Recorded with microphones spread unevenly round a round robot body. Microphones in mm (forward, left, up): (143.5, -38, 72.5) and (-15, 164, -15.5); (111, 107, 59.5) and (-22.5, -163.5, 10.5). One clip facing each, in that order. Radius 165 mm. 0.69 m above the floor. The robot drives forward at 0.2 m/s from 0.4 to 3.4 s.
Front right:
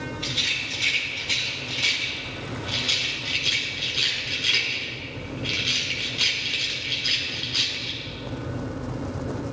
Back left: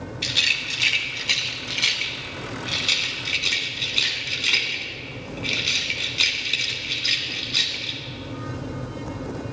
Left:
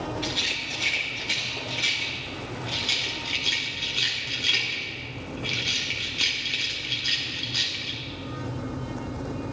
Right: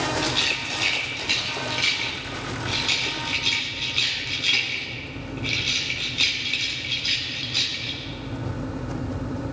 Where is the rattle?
165° left, 1.2 m; by 8.0 s 170° left, 1.8 m.